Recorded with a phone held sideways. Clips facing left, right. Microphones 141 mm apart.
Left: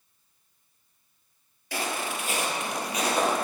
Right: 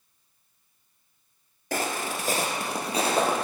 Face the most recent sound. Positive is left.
turn(degrees=-25)  # may be behind; listen again after turning